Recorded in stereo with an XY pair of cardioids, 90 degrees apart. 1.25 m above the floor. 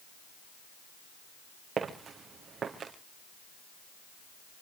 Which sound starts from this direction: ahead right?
Footsteps, at 1.8 s.